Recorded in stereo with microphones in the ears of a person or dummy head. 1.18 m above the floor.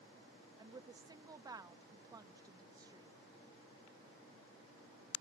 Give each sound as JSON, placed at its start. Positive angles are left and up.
{"t": 0.6, "sound": "a woman speaking", "side_deg": -15}